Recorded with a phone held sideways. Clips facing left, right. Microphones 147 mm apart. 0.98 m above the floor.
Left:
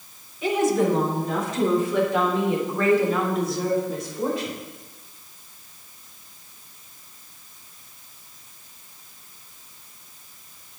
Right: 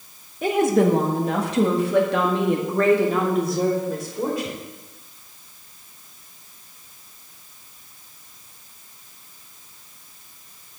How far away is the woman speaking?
About 1.4 m.